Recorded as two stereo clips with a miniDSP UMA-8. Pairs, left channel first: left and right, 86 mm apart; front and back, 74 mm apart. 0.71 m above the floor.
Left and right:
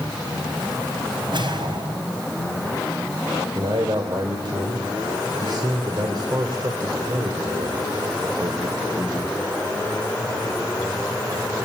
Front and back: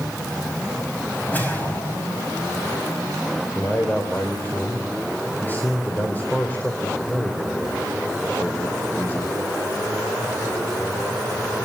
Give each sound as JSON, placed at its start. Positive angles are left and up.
{"t": 1.3, "sound": "a whoosh", "azimuth_deg": -65, "distance_m": 5.0}
{"t": 3.5, "sound": "a man speaking", "azimuth_deg": -65, "distance_m": 3.5}